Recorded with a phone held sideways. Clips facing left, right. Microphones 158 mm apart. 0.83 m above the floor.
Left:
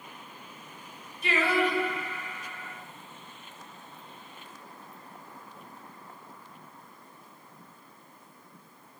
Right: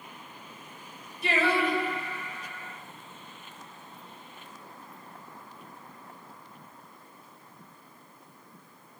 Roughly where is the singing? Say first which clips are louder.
Even; right.